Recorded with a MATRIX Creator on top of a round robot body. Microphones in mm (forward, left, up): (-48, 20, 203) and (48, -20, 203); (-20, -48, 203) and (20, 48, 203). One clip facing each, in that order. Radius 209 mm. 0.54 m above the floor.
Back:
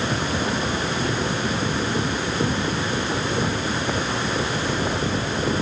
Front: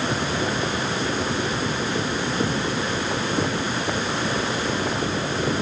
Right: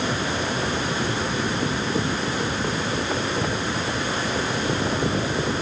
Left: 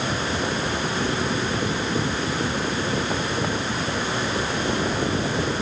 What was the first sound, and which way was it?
Only background noise.